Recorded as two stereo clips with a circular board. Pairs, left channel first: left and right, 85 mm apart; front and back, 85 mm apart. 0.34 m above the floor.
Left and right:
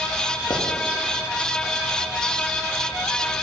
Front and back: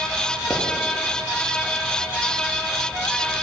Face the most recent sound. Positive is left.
turn(degrees=90)